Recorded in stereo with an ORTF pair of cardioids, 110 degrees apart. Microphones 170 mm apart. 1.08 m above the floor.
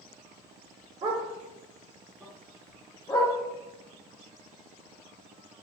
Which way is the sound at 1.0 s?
30° right.